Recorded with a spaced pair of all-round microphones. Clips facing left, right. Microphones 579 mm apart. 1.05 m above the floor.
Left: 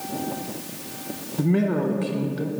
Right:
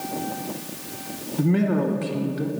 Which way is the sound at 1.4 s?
Centre (ahead or behind).